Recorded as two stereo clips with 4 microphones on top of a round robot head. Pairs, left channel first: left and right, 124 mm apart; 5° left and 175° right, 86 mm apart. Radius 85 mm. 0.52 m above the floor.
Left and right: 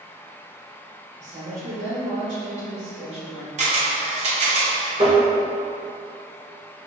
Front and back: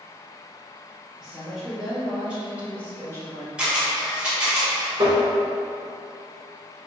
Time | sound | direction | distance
1.2 | a woman speaking | 80° right | 2.0 m
3.6 | a camera shutter | 100° right | 1.2 m
5.0 | tapping | 140° right | 0.9 m